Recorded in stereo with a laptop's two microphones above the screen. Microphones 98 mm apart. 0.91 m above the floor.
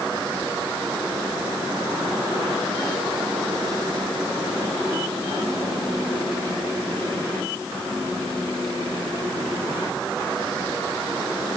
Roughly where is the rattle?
I don't hear a rattle.